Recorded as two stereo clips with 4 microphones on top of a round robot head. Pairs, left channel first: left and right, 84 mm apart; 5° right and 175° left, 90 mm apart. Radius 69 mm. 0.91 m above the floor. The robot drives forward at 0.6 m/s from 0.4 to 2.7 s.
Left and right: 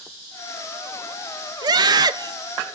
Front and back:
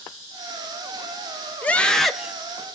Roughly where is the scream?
Right.